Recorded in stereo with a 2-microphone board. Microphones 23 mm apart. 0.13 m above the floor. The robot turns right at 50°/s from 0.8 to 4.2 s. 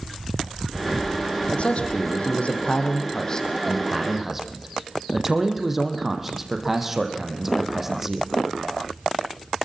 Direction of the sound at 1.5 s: 55° left.